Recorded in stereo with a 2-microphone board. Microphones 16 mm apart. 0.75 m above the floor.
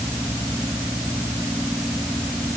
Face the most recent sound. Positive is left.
No sound to turn to.